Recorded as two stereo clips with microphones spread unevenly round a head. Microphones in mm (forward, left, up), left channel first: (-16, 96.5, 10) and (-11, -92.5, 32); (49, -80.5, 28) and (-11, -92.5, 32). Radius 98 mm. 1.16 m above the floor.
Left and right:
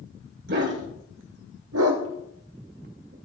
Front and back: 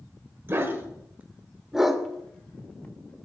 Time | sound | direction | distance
0.5 | a dog barking | 120° right | 2.5 m